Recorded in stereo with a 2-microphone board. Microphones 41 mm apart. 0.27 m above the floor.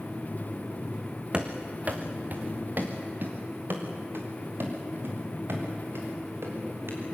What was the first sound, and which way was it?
Running footsteps, 25° right (ahead or behind).